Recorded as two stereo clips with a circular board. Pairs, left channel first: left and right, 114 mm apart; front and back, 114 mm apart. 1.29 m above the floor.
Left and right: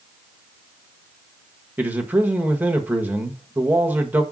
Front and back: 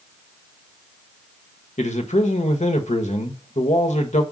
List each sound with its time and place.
1.8 s a man speaking: 15° right, 1.3 m